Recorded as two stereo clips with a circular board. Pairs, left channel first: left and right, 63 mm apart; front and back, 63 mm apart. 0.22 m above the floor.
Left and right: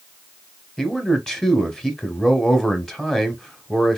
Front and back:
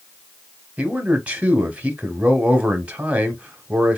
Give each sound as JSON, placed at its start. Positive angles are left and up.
{"t": 0.8, "sound": "a man speaking", "azimuth_deg": 150, "distance_m": 1.0}